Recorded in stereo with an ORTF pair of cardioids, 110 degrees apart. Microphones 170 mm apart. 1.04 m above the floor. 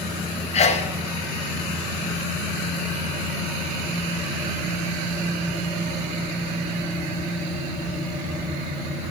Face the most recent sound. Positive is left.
turn(degrees=40)